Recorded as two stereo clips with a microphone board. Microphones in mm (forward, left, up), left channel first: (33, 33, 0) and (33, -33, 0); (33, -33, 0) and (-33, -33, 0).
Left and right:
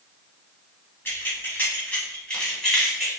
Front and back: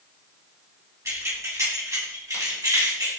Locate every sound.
1.1 s keys jangling: 145° left, 2 m; by 3.1 s 175° left, 2.5 m